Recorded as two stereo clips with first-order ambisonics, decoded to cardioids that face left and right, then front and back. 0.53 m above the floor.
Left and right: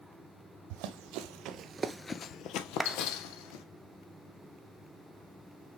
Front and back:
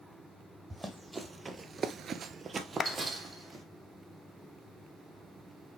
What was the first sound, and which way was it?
Running footsteps, 95° right.